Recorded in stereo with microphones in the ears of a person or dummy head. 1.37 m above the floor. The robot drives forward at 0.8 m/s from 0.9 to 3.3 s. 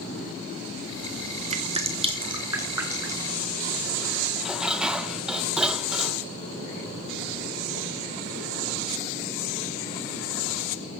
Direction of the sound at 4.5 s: Centre (ahead or behind).